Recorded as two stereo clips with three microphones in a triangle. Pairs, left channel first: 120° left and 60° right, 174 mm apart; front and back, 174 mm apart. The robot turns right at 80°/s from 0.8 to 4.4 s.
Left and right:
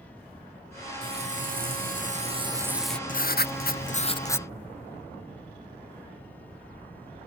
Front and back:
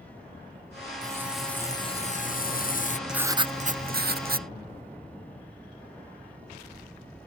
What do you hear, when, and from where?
1.0 s frying: 120° right; by 3.0 s 40° left
3.1 s writing: 95° left; by 4.5 s 160° right